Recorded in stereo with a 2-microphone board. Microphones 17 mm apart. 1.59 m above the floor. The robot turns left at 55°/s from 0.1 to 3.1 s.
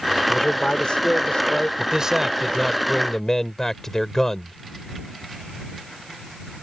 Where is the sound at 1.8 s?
130° right; by 4.5 s 155° left.